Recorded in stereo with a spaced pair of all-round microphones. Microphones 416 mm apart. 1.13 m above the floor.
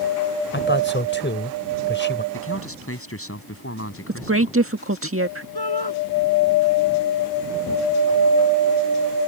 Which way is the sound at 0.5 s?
25° left (ahead or behind).